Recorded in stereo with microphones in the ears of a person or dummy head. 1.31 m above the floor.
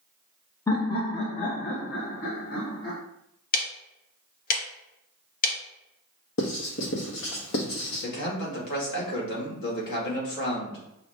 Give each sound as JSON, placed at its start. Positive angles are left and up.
{"t": 0.7, "sound": "laughter", "side_deg": 15, "distance_m": 0.6}
{"t": 3.5, "sound": "ticking", "side_deg": 45, "distance_m": 0.8}
{"t": 6.4, "sound": "writing", "side_deg": 65, "distance_m": 1.2}
{"t": 8.0, "sound": "a man speaking", "side_deg": 60, "distance_m": 1.9}